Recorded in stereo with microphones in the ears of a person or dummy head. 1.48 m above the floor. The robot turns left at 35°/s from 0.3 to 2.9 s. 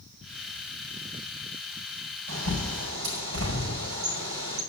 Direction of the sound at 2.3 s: 70° right (ahead or behind).